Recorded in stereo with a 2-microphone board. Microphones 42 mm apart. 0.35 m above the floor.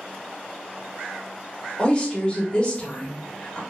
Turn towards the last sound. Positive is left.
turn(degrees=25)  # may be behind; listen again after turning